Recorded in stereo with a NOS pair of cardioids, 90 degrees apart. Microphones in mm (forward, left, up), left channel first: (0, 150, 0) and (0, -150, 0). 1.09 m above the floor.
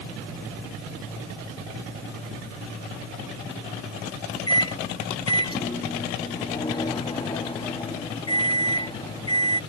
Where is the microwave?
15° left.